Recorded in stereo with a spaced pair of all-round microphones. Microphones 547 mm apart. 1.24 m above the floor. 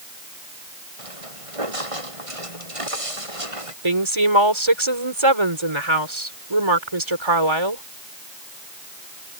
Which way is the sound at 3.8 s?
60° right (ahead or behind).